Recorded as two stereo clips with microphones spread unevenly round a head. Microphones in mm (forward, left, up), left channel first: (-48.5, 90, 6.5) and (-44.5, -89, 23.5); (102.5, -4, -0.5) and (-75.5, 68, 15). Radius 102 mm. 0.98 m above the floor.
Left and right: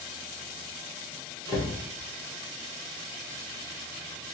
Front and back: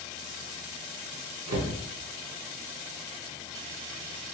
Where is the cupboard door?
155° left, 1.1 m.